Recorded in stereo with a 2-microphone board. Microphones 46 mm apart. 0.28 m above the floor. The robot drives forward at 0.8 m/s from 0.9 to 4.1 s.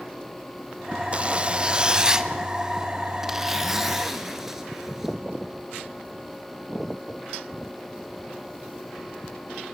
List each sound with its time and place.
1.1 s a zipper: 30° right (ahead or behind), 0.6 m; by 5.2 s 5° right (ahead or behind), 2.5 m